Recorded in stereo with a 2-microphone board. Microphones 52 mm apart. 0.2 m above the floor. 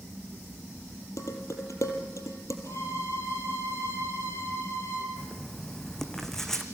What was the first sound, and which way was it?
Dishes clattering, 80° left.